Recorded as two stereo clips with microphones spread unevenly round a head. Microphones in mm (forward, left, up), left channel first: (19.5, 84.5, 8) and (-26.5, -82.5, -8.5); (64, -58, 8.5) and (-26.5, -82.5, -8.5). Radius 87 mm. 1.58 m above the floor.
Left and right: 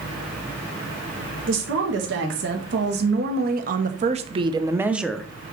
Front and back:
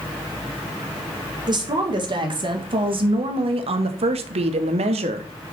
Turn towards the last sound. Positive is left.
turn(degrees=155)